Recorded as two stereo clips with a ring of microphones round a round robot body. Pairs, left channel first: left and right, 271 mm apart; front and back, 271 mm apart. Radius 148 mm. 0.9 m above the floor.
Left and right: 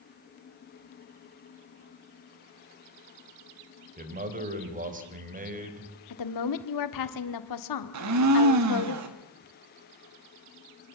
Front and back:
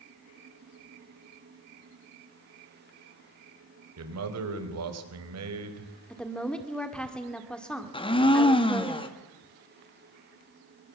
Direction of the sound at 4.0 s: 150° right.